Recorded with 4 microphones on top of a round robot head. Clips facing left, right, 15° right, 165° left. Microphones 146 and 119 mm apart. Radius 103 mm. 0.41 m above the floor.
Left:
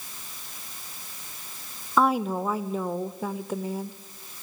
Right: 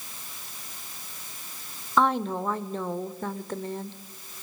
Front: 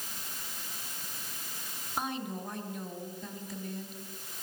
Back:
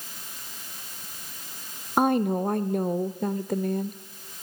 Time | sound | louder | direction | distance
2.0 | a woman speaking | left 1 dB, back 14 dB | 170° left | 1.2 m